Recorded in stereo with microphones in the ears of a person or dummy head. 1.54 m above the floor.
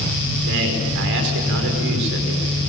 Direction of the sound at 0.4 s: 65° right (ahead or behind).